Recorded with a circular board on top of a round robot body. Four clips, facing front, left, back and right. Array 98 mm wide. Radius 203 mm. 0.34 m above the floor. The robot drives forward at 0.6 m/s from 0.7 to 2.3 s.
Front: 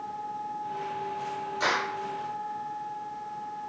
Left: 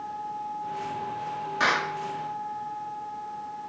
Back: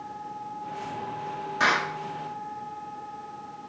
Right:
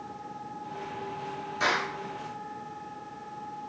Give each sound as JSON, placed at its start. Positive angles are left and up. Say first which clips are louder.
{"t": 1.6, "sound": "a clap", "louder": "left 3 dB, back 4 dB", "azimuth_deg": 130, "distance_m": 7.0}